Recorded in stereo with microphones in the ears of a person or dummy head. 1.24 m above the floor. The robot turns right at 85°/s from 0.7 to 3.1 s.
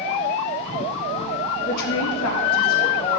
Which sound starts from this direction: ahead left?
A woman speaking, at 1.7 s.